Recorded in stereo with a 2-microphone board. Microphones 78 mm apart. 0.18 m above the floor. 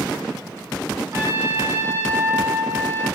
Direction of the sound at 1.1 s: 35° right (ahead or behind).